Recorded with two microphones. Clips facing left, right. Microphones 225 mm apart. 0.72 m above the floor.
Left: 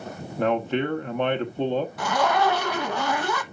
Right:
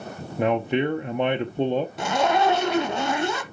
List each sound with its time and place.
0.4 s a man speaking: 15° right (ahead or behind), 0.7 m
2.0 s a zipper: 25° right (ahead or behind), 0.9 m